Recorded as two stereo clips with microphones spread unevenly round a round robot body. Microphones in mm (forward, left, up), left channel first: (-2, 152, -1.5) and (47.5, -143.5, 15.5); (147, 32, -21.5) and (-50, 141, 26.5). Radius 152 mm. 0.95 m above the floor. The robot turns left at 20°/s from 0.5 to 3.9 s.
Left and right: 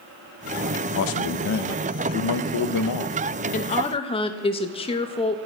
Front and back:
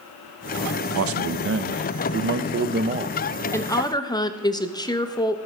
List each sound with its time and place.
0.9 s a man speaking: 135° left, 0.6 m; by 3.2 s 90° left, 0.6 m
3.5 s a woman speaking: 40° left, 1.0 m; by 5.4 s 30° left, 1.0 m